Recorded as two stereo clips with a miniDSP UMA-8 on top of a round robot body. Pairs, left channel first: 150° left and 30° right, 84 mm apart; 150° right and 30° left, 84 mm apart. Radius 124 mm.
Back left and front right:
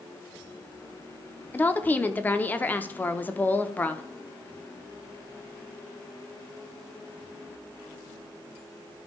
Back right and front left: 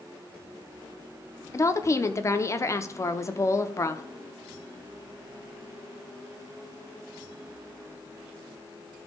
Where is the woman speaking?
155° right, 0.9 m.